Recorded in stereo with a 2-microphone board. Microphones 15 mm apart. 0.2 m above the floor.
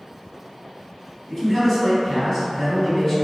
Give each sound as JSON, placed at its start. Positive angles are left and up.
{"t": 1.3, "sound": "a man speaking", "side_deg": 30, "distance_m": 1.5}